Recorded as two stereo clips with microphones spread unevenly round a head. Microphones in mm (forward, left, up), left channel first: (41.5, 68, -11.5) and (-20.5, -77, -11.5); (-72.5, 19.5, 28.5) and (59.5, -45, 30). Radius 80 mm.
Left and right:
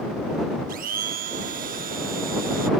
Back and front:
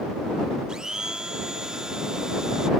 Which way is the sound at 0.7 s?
110° right.